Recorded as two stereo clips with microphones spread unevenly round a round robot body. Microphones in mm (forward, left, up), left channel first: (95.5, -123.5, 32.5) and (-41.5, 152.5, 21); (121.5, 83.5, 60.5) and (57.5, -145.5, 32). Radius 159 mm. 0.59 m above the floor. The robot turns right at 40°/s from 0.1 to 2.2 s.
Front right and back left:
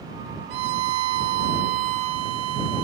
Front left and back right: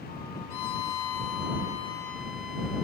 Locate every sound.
0.5 s a violin: 95° left; by 2.8 s 165° left